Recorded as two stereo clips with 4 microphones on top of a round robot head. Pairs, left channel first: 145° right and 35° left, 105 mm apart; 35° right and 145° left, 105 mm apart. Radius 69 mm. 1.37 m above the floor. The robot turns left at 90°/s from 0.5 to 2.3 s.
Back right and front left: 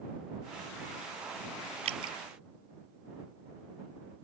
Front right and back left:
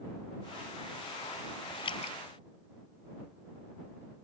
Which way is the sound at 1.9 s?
10° left.